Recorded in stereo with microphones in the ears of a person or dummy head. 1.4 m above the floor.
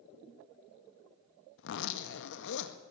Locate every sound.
1.6 s a zipper: 75° left (ahead or behind), 1.5 m